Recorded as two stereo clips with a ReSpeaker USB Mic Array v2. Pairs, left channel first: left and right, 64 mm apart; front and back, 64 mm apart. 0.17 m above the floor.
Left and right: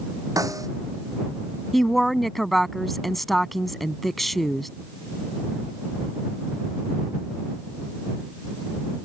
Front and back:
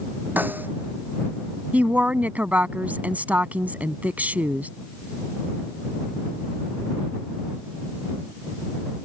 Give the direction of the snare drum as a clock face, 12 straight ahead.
4 o'clock.